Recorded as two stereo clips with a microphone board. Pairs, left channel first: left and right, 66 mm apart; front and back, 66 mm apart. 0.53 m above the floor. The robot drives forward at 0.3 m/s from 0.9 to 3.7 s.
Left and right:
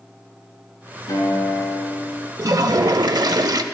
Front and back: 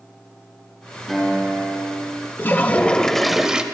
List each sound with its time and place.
1.1 s a guitar: 85° left, 4 m; by 2.3 s 95° left, 4 m
2.4 s a toilet flushing: 60° right, 0.6 m; by 3.6 s 105° right, 0.5 m